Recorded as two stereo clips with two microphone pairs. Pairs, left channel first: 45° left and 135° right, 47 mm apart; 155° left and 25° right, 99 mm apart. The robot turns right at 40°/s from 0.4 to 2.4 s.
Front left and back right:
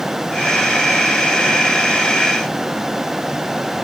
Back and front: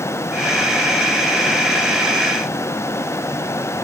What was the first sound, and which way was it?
Only background noise.